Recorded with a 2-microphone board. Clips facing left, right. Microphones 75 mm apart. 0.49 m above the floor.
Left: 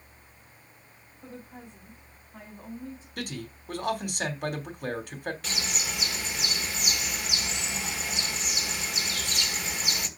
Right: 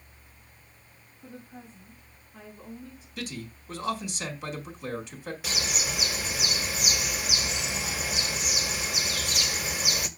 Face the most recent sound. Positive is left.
turn(degrees=-10)  # may be behind; listen again after turning